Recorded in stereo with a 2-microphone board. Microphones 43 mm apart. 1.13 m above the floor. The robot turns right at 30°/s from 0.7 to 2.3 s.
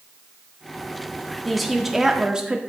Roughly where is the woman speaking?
Centre.